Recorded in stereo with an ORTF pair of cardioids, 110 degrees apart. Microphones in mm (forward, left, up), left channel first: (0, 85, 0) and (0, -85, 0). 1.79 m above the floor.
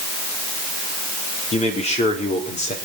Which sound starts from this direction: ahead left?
A man speaking, at 1.5 s.